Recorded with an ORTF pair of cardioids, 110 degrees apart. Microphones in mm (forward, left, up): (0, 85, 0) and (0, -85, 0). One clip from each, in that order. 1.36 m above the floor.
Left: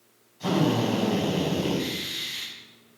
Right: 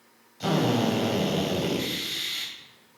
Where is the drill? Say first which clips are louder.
Even; 55° right, 7 m.